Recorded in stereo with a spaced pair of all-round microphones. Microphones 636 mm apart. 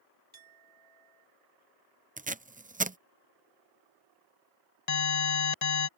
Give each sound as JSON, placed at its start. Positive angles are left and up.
{"t": 0.3, "sound": "a clink", "side_deg": -45}
{"t": 2.2, "sound": "tape being pulled", "side_deg": -15}
{"t": 4.9, "sound": "an alarm", "side_deg": 70}